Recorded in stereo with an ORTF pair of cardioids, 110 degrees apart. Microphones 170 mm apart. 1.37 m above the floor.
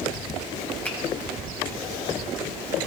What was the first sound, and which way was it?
A finger snap, 10° left.